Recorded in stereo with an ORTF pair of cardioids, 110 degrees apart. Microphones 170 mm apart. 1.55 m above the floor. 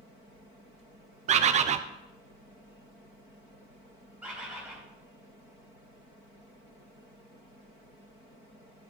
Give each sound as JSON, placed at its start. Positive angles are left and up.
{"t": 1.3, "sound": "a bird", "azimuth_deg": -45, "distance_m": 0.5}
{"t": 4.2, "sound": "a bird", "azimuth_deg": -5, "distance_m": 2.5}